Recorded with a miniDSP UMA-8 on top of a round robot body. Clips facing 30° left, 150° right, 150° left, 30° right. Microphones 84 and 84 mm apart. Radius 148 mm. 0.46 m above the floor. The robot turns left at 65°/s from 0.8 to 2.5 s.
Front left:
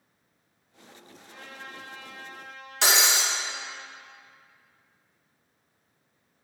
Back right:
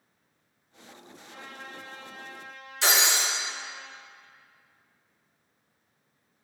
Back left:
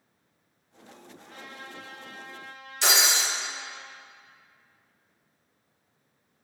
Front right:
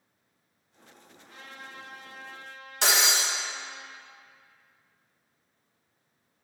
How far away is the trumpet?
About 1.1 m.